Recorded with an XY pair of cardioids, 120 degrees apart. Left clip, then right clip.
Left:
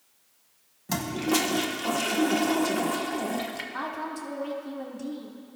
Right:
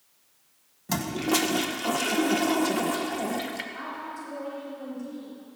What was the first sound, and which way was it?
A toilet flushing, 5° right.